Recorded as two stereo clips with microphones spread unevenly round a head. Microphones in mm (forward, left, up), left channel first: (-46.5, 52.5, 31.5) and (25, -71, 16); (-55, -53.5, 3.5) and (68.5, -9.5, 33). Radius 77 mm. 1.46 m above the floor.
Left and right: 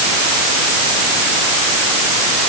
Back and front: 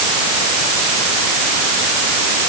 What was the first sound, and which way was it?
Only background noise.